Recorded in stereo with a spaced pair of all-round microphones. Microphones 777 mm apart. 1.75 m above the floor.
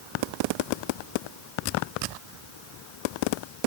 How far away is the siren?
I don't hear a siren.